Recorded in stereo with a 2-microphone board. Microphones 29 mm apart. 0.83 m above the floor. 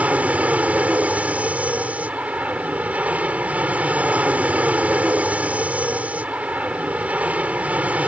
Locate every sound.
0.0 s an aircraft: 60° right (ahead or behind)